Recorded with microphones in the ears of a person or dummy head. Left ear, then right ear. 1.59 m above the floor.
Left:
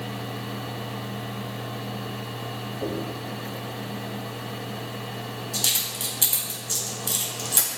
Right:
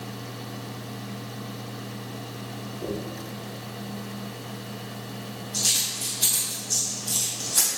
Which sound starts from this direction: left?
A dropped coin, at 2.8 s.